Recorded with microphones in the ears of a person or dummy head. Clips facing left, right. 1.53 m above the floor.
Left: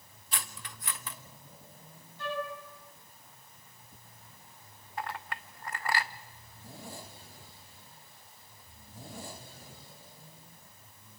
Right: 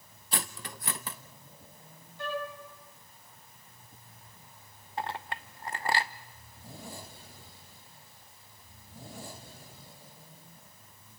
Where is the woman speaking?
No woman speaking in this recording.